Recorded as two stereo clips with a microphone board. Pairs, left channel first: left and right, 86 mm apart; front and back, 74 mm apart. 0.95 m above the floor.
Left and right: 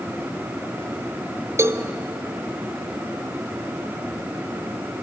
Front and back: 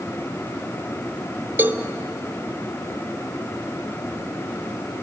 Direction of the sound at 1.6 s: 130° right.